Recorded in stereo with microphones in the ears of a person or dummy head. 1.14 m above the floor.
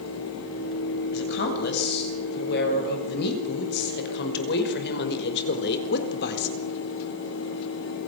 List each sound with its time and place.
1.1 s a woman speaking: 55° left (ahead or behind), 8.5 m; by 6.6 s 60° left (ahead or behind), 4 m